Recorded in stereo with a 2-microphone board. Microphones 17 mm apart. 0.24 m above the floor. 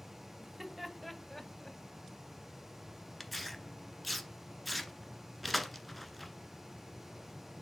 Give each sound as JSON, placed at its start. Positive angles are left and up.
{"t": 0.4, "sound": "laughter", "side_deg": -15, "distance_m": 1.9}
{"t": 3.2, "sound": "tearing paper", "side_deg": 0, "distance_m": 1.2}